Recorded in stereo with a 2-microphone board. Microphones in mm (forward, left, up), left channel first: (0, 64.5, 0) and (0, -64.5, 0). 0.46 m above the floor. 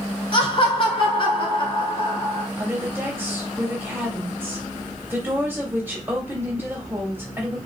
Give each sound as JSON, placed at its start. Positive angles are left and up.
{"t": 0.3, "sound": "laughter", "side_deg": 40, "distance_m": 1.6}
{"t": 2.6, "sound": "a woman speaking", "side_deg": -15, "distance_m": 2.5}